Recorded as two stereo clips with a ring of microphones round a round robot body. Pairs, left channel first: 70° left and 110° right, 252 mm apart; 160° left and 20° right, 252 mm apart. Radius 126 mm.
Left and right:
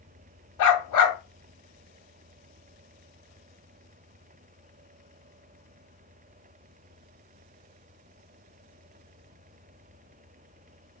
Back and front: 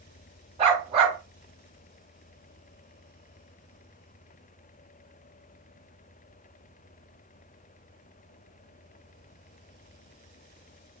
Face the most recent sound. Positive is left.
turn(degrees=45)